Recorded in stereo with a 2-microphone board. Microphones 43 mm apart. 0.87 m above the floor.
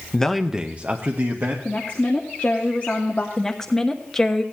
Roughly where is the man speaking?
Centre.